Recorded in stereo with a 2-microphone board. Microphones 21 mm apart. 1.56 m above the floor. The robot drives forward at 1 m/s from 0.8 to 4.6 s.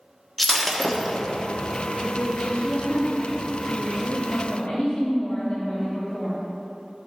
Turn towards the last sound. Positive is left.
turn(degrees=55)  # may be behind; listen again after turning